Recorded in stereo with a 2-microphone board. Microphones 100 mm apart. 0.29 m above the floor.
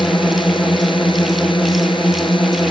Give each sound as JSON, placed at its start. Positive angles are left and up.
{"t": 0.0, "sound": "a drone", "side_deg": 55}